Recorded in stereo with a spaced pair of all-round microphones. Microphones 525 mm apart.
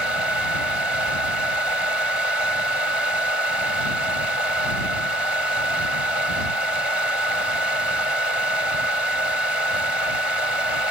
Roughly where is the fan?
Left.